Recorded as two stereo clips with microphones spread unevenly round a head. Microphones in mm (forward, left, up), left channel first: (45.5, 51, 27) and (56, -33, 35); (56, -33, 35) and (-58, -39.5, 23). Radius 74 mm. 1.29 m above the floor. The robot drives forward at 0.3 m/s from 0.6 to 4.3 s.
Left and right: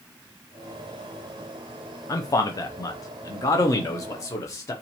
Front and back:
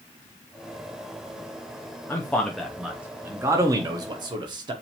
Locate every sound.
2.1 s a man speaking: 75° left, 0.6 m; by 4.7 s 145° left, 0.8 m